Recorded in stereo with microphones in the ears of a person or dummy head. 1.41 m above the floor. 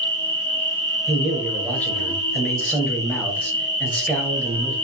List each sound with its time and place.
0.0 s an insect: 15° left (ahead or behind), 1.3 m
1.1 s a man speaking: 5° left (ahead or behind), 1.4 m